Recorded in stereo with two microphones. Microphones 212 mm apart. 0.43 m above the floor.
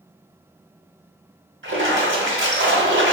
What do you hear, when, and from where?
1.6 s a splash: 65° right (ahead or behind), 0.8 m